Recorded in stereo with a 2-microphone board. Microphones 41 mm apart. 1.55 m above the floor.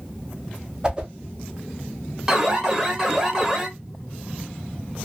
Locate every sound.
0.8 s a whoosh: 20° right (ahead or behind), 0.6 m
2.3 s an alarm: 15° right (ahead or behind), 0.7 m